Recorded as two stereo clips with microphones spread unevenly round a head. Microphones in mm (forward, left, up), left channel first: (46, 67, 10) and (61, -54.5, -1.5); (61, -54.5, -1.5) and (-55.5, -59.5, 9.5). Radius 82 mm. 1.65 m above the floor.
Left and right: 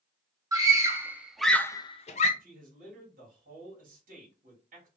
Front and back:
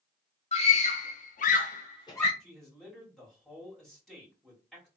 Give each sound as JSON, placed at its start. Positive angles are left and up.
{"t": 0.5, "sound": "a scream", "azimuth_deg": -20, "distance_m": 2.0}
{"t": 2.4, "sound": "a man speaking", "azimuth_deg": -85, "distance_m": 2.5}